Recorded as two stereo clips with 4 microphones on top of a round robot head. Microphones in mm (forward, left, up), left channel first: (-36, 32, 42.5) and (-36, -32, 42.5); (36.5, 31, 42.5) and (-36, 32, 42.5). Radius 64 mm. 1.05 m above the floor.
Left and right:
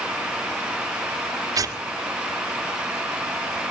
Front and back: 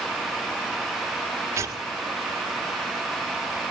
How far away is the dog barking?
I don't hear a dog barking.